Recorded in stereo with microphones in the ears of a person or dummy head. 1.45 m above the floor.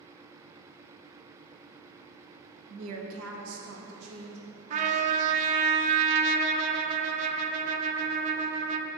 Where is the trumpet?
35° right (ahead or behind), 0.5 m.